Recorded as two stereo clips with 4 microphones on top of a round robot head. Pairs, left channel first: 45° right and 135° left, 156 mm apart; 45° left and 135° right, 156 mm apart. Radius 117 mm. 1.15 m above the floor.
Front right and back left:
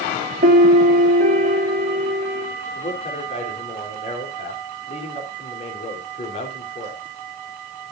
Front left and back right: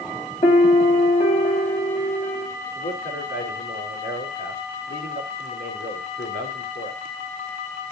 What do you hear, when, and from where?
0.4 s a piano: 100° left, 1.9 m
2.8 s a man speaking: 10° left, 3.5 m